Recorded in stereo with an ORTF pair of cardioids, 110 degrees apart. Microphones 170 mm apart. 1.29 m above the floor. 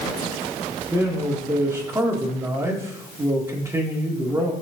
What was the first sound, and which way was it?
A man speaking, 15° right.